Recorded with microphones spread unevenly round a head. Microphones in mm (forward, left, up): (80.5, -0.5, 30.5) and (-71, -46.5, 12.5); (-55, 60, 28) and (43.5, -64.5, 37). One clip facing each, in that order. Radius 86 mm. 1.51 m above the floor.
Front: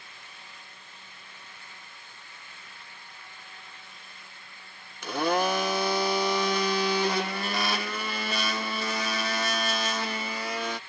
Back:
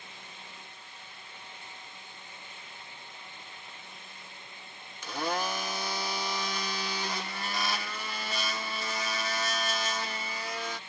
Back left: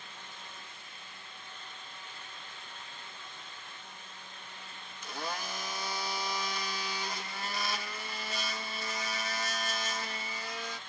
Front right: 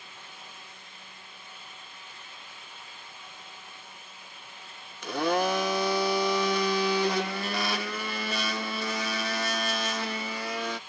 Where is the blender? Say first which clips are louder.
Front 7 dB, front right 14 dB; 15° right.